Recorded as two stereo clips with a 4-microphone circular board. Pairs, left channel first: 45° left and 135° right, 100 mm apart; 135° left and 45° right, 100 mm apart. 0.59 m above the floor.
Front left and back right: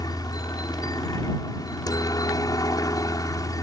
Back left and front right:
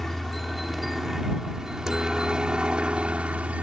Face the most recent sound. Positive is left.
turn(degrees=25)